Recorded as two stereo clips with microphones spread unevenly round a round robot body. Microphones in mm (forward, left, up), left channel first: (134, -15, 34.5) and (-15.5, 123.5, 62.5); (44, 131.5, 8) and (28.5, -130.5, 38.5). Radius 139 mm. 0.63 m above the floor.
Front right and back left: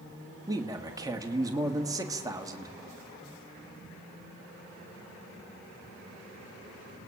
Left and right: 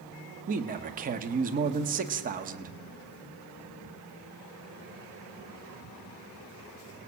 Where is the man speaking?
145° right, 1.3 m.